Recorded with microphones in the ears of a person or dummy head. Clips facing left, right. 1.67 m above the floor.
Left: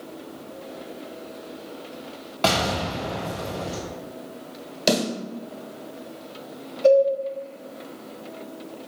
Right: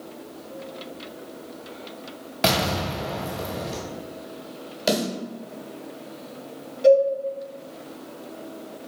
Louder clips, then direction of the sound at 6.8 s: Right 1 dB; 25° right (ahead or behind).